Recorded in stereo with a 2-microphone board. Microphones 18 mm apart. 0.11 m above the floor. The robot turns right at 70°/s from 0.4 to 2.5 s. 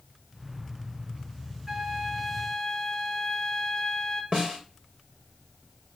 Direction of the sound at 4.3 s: 45° right (ahead or behind).